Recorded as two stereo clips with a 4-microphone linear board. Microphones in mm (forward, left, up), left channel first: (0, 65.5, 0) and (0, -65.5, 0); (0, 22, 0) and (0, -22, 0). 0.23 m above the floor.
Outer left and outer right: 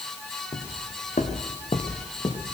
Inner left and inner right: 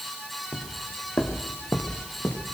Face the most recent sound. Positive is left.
turn(degrees=45)  # may be behind; listen again after turning